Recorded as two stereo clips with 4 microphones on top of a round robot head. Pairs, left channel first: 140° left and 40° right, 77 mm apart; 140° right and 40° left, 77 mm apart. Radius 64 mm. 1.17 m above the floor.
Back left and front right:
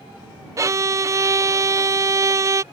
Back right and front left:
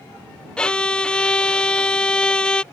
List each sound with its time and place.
0.6 s a violin: 65° right